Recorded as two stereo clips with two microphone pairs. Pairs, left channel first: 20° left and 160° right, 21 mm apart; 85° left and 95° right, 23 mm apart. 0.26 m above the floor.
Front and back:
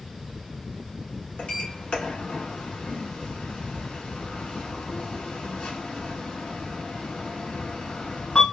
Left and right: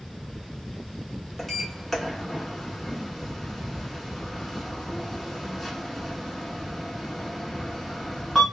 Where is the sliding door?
Straight ahead, 0.9 m.